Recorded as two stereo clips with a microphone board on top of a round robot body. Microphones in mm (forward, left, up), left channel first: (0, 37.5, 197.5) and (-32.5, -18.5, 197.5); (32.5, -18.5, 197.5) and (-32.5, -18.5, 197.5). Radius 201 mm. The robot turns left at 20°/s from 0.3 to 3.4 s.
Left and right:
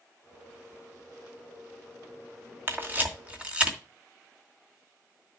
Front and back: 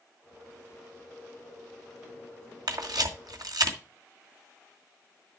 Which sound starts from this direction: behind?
A camera shutter, at 2.7 s.